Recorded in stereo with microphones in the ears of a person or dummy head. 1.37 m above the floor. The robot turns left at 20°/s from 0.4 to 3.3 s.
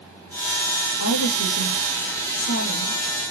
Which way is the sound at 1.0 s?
95° left.